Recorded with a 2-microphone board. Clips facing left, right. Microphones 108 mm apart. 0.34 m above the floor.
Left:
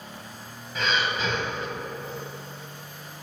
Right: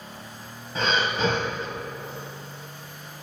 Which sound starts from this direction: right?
Breathing, at 0.8 s.